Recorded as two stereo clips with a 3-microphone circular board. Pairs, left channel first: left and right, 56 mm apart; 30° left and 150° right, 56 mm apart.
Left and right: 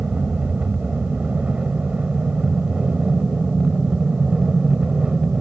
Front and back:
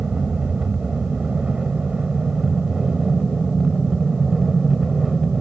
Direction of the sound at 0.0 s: 110° right.